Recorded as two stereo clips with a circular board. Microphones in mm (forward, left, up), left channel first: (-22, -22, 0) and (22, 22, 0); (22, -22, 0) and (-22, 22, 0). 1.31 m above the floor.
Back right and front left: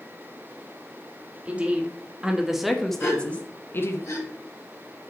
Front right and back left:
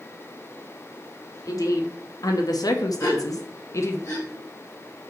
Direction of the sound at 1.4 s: 20° right.